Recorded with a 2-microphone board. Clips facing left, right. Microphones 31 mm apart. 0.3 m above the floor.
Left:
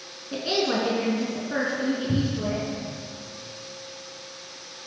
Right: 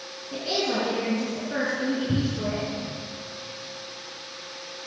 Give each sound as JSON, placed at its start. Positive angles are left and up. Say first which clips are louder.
{"t": 0.3, "sound": "a woman speaking", "louder": "left 2 dB", "side_deg": 30, "distance_m": 3.5}
{"t": 2.1, "sound": "a cupboard door", "louder": "left 1 dB", "side_deg": 0, "distance_m": 1.9}